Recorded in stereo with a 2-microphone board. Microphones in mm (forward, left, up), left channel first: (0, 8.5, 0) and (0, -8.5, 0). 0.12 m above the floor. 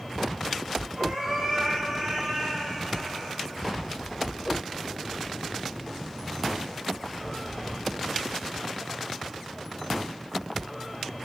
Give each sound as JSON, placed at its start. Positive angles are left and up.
{"t": 1.0, "sound": "a cat meowing", "side_deg": -50, "distance_m": 4.5}